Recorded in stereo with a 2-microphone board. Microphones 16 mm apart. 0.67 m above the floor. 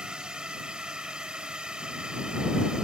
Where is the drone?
65° right (ahead or behind).